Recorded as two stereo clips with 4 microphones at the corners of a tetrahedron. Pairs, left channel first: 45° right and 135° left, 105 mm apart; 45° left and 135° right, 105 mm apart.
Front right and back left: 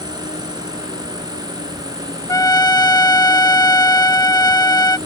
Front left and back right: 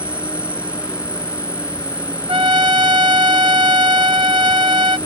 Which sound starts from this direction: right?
A trumpet, at 2.3 s.